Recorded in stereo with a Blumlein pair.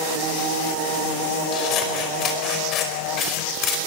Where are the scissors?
35° left, 5 m.